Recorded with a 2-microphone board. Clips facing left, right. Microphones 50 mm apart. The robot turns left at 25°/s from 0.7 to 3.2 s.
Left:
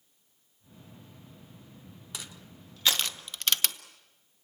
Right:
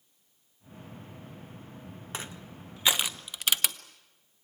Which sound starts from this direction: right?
Crushing, at 2.1 s.